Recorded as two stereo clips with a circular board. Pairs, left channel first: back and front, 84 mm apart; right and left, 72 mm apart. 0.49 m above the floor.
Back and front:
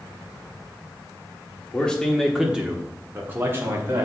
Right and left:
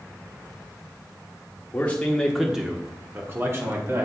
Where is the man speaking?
120° right, 1.3 m; by 4.0 s 50° left, 2 m.